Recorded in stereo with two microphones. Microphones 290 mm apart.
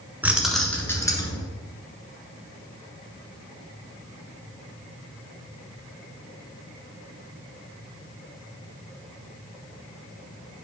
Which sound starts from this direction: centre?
Keys jangling, at 0.2 s.